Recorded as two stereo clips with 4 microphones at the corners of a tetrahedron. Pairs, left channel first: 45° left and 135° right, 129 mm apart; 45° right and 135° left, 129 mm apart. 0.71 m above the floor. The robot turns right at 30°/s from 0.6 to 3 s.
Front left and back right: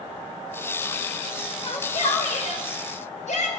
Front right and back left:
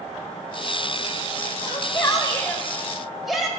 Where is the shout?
5° left, 3.5 m; by 3.5 s 45° left, 3.5 m.